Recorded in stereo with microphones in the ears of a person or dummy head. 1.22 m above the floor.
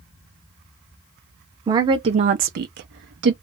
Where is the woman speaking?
15° right (ahead or behind), 0.7 m; by 3.3 s 55° right (ahead or behind), 0.7 m.